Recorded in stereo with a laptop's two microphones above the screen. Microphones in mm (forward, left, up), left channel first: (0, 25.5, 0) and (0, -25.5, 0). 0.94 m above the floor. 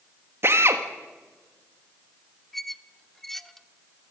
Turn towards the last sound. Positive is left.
turn(degrees=5)  # may be behind; listen again after turning